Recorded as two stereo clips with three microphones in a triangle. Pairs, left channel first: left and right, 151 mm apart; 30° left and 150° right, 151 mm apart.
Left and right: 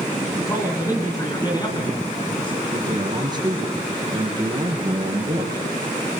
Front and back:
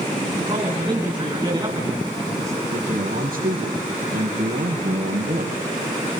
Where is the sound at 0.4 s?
160° left, 5 m; by 2.6 s 145° left, 4 m.